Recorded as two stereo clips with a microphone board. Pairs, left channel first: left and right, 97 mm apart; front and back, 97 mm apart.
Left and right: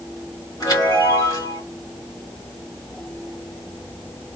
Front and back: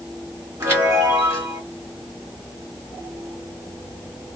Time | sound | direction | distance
0.6 | a chime | 125° left | 2.0 m